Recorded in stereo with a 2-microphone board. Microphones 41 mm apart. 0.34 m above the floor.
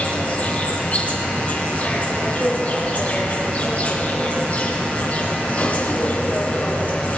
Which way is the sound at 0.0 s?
35° left (ahead or behind).